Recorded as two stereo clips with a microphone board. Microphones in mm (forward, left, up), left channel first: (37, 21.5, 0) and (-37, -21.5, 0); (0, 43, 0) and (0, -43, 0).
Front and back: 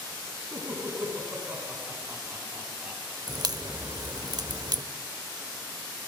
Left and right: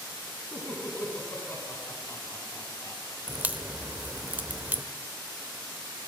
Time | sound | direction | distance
0.5 | laughter | 155° left | 4 m
3.3 | a crack | 155° right | 0.6 m